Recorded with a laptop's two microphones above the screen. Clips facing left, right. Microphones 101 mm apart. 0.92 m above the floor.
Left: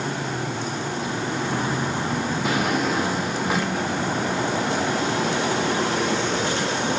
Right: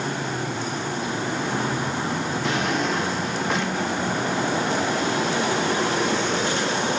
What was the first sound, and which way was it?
A drawer, 5° left (ahead or behind).